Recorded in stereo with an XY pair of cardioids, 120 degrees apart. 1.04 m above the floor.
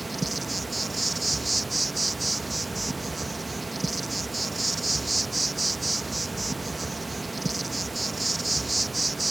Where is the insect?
15° right.